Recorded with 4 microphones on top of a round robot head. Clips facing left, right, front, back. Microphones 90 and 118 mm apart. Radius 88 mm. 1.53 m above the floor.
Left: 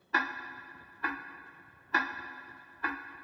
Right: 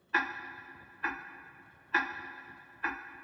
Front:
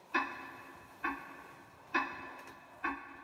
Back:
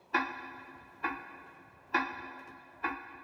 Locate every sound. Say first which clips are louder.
0.1 s ticking: left 1 dB, back 3 dB; 155° left, 0.7 m